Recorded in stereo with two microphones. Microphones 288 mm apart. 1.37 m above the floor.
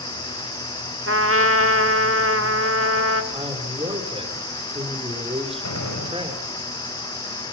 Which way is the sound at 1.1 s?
50° right (ahead or behind).